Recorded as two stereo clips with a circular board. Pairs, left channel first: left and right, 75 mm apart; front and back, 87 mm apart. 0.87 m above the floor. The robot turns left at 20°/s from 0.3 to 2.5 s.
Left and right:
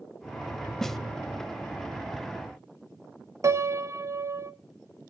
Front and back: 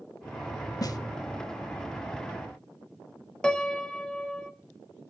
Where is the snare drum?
10° left, 0.8 m; by 1.0 s 5° left, 0.8 m.